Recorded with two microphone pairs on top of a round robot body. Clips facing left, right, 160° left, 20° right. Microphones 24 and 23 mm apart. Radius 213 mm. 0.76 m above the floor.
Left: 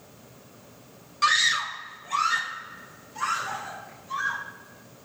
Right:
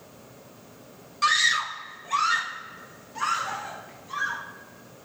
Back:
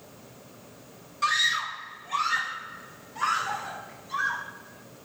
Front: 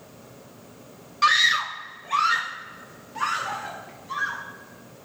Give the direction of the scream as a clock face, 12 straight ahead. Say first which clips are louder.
Even, front 5 dB; 12 o'clock.